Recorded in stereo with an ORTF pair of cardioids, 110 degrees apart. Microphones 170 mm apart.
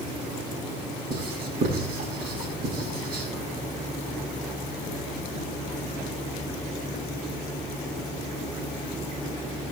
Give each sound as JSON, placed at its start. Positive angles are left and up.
{"t": 1.1, "sound": "writing", "azimuth_deg": -60, "distance_m": 8.5}